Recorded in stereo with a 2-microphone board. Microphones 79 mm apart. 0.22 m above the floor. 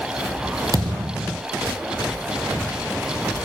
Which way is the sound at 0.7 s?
45° right (ahead or behind).